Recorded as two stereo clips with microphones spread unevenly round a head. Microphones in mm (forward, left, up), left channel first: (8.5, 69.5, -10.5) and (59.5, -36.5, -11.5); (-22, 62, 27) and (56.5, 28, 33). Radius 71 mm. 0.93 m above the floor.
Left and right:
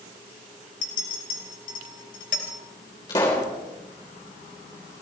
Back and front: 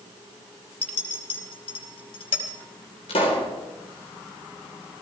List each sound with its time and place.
0.8 s a clink: 150° left, 3 m
3.1 s a pop: straight behind, 3.5 m